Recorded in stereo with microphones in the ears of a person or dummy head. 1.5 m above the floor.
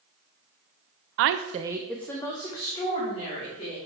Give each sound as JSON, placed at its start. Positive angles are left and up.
{"t": 1.2, "sound": "a woman speaking", "side_deg": -60, "distance_m": 0.6}